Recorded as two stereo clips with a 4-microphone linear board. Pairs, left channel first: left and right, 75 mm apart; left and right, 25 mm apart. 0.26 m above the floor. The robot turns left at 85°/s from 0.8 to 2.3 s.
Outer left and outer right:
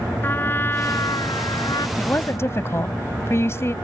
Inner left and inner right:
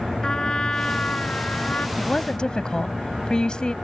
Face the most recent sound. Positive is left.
turn(degrees=35)  # may be behind; listen again after turning